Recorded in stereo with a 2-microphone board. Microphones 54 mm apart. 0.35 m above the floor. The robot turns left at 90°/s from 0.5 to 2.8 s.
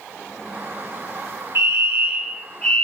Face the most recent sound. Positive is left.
turn(degrees=150)